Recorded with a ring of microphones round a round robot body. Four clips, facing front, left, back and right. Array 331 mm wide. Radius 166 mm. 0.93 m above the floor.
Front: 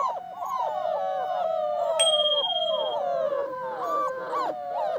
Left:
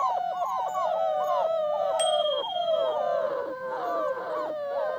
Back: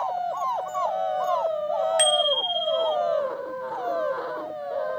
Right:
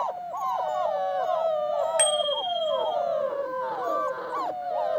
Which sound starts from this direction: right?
A bicycle bell, at 2.0 s.